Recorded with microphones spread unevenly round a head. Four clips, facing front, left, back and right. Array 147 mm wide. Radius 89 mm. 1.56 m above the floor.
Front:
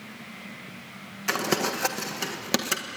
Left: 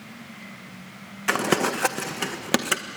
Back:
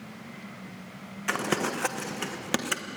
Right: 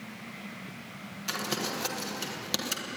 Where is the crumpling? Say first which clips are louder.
Left 11 dB, front 2 dB; 70° left, 1.4 m.